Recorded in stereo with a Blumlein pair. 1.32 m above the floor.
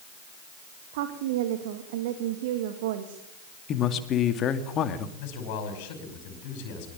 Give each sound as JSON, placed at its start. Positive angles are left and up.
{"t": 0.9, "sound": "a woman speaking", "azimuth_deg": -50, "distance_m": 2.5}
{"t": 3.7, "sound": "a man speaking", "azimuth_deg": 30, "distance_m": 2.0}
{"t": 5.2, "sound": "a man speaking", "azimuth_deg": 45, "distance_m": 5.5}